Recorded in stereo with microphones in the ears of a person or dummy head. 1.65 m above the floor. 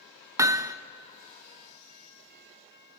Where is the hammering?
15° right (ahead or behind), 0.7 m.